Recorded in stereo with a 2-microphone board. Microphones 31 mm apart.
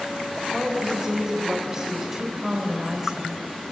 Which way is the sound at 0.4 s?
15° right (ahead or behind).